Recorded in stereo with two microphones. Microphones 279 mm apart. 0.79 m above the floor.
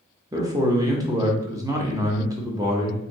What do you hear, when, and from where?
0.3 s a man speaking: 15° right (ahead or behind), 0.9 m